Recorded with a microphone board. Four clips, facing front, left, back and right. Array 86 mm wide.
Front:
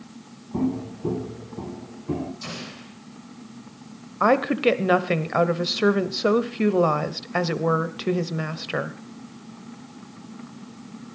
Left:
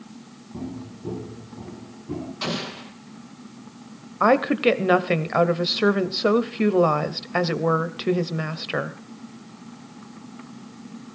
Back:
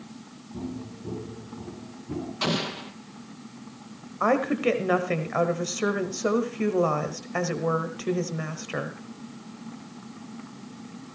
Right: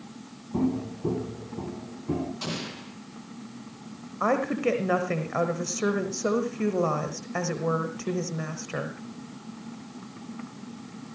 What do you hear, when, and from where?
0.5 s footsteps: 35° right, 1.8 m; by 2.3 s 30° right, 4 m
2.4 s an explosion: 155° left, 2 m
4.2 s a woman speaking: 60° left, 1.2 m